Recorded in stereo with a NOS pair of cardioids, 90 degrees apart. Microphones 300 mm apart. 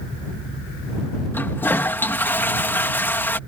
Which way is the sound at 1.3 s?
5° left.